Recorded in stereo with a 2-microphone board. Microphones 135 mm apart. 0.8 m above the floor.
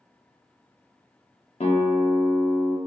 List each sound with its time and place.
1.6 s a guitar: 50° left (ahead or behind), 0.5 m